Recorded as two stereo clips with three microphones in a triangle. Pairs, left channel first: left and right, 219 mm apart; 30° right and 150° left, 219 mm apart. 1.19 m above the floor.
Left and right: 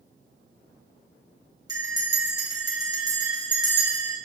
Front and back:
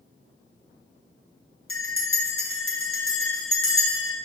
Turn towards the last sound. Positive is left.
turn(degrees=-15)